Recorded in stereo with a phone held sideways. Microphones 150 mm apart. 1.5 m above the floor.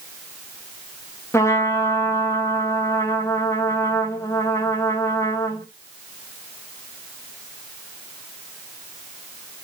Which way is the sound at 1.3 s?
20° left (ahead or behind).